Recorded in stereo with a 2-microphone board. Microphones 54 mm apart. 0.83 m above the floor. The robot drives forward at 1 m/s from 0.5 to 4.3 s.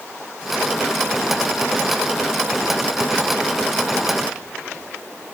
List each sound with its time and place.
Only background noise.